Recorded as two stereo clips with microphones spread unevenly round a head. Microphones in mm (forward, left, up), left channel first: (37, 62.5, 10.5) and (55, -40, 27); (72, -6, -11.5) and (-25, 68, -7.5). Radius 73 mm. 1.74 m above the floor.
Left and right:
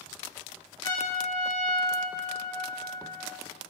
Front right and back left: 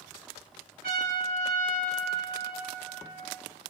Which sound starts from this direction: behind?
A trumpet, at 0.8 s.